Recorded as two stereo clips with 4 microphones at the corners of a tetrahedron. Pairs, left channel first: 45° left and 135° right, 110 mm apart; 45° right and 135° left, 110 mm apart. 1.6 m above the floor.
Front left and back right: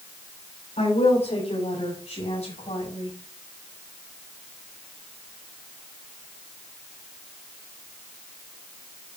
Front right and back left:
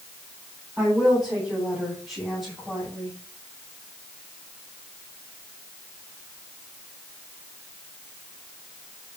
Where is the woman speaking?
50° left, 9 m; by 3.2 s 45° left, 7.5 m.